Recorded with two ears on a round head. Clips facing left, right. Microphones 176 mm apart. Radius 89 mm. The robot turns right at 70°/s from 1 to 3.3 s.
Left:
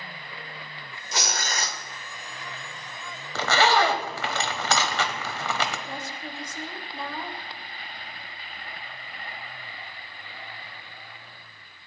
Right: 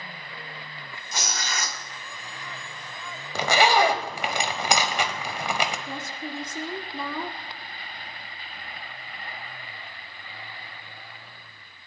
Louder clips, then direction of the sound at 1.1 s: Left 2 dB; 115° left.